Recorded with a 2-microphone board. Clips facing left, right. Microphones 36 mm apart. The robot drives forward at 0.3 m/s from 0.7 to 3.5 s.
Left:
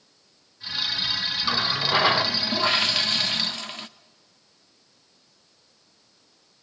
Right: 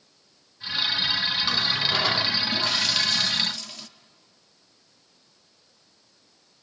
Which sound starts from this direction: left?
A running tap, at 1.4 s.